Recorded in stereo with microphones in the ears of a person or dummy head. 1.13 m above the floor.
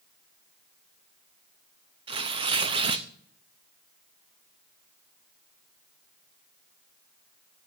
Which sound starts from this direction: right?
Tearing paper, at 2.1 s.